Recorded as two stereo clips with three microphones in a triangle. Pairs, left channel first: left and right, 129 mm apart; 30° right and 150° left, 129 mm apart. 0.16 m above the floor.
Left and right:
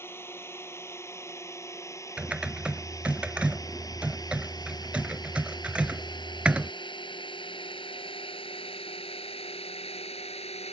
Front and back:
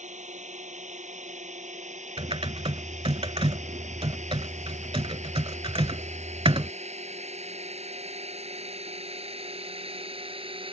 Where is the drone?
160° left; by 10.7 s 115° left.